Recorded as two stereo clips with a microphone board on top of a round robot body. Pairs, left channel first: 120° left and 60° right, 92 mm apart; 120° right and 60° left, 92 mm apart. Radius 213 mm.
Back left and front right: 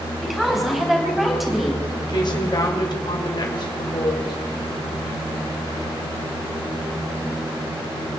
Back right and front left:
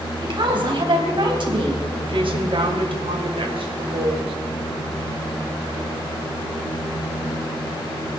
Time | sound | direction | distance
0.2 | a woman speaking | 30° left | 4 m
2.1 | a woman speaking | 80° left | 3 m